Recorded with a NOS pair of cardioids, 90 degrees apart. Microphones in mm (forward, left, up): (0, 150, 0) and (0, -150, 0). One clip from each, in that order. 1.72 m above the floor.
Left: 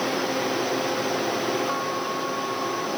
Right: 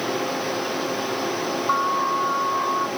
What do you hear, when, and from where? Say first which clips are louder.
1.7 s an alarm: right 6 dB; 60° right